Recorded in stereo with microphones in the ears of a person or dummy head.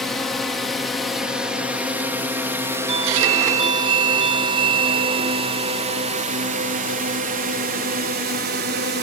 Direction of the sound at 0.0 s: 5° left (ahead or behind).